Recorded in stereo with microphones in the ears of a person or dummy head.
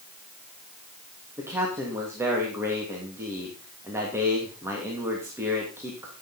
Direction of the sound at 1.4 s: 10° right (ahead or behind).